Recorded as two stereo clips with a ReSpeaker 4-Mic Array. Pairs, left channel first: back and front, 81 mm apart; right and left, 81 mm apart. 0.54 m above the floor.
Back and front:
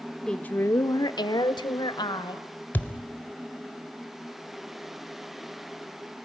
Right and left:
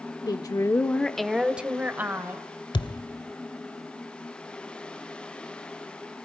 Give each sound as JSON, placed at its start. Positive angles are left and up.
{"t": 0.3, "sound": "a woman speaking", "azimuth_deg": -100, "distance_m": 1.1}
{"t": 2.7, "sound": "a thud", "azimuth_deg": -110, "distance_m": 1.3}